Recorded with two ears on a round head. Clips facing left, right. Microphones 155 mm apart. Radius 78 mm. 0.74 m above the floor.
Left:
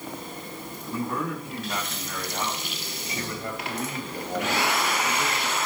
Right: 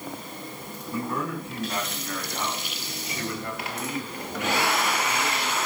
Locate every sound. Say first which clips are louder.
0.9 s a man speaking: even; 15° left (ahead or behind), 6 m; by 5.6 s 65° left (ahead or behind), 3 m